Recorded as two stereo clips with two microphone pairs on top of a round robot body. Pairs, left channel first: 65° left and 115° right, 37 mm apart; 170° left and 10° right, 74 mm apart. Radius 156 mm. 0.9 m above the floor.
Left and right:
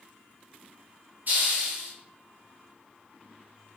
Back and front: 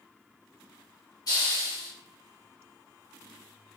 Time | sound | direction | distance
1.3 | a hiss | 155° right | 4 m